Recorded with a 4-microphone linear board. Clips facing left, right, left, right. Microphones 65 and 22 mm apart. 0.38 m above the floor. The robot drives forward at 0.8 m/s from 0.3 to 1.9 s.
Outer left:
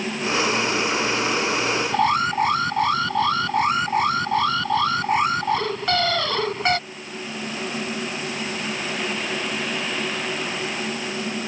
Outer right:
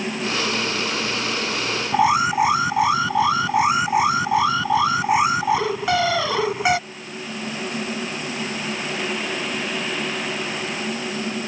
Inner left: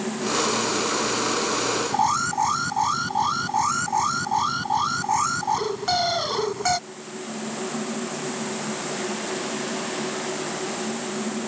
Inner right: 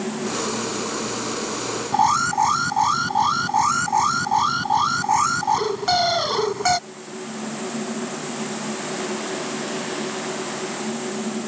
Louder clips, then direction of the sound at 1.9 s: Outer right 4 dB, inner right 6 dB; 10° right (ahead or behind).